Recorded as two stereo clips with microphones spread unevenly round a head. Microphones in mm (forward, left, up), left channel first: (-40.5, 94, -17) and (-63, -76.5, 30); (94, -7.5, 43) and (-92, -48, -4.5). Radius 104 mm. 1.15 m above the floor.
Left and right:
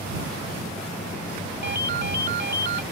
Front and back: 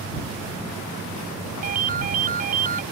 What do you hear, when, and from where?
1.6 s a ringtone: 120° right